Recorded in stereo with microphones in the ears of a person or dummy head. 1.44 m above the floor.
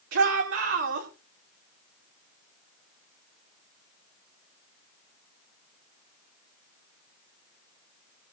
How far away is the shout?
About 4.5 m.